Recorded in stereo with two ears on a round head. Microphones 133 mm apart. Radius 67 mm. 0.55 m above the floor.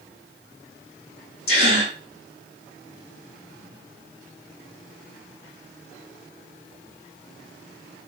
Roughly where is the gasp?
Left.